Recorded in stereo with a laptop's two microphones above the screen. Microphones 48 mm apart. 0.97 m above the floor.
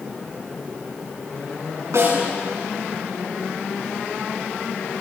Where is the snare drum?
85° right, 8.5 m.